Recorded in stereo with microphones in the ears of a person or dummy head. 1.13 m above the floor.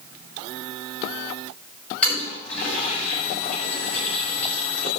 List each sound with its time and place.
2.0 s a toilet flushing: centre (ahead or behind), 7 m